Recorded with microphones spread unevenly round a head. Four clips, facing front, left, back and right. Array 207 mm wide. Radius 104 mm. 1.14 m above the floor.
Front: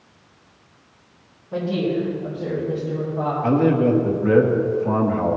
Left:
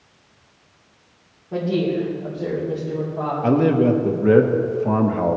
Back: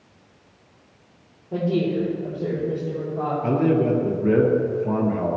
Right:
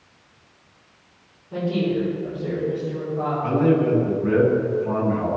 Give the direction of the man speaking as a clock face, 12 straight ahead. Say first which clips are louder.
Left 3 dB, front 3 dB; 8 o'clock.